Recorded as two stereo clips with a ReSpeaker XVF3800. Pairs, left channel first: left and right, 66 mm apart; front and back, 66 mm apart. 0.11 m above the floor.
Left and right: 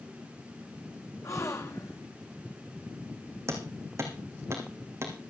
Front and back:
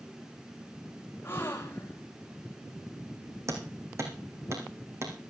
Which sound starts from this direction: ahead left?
A gasp, at 1.2 s.